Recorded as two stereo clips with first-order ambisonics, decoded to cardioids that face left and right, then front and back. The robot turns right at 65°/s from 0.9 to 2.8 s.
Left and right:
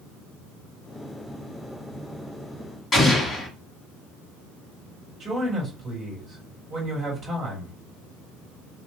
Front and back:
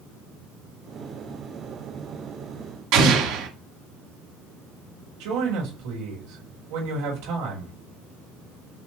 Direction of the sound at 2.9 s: 160° left.